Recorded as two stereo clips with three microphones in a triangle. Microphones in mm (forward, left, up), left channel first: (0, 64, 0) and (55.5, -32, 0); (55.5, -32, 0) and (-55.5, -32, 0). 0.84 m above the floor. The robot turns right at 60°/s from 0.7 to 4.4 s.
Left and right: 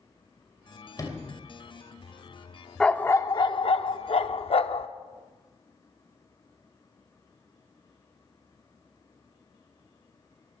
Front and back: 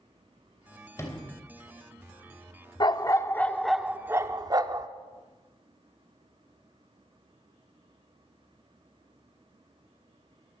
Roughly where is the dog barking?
Ahead left.